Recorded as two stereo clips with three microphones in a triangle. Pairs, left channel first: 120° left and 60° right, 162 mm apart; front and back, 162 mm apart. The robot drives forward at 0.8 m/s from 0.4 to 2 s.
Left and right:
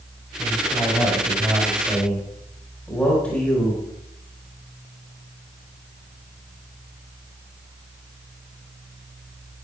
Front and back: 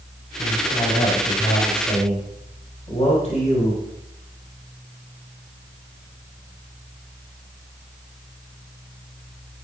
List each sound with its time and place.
0.4 s a man speaking: 25° left, 4 m; by 3.8 s 40° left, 3 m